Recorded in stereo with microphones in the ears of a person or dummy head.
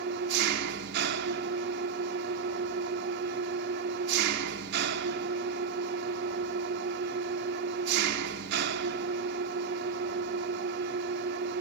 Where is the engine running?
65° right (ahead or behind), 2 m.